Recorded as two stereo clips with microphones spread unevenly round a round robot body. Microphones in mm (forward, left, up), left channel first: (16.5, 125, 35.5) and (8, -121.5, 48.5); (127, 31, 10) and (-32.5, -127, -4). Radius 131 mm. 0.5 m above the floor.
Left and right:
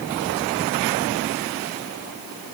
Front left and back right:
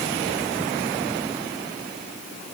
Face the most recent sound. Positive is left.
No sound to turn to.